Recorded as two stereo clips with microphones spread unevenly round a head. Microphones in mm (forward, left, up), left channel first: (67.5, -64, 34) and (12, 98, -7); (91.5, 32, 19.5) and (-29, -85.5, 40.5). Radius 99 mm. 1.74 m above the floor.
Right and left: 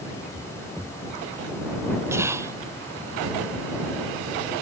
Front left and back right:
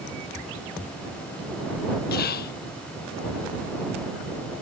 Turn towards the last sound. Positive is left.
turn(degrees=25)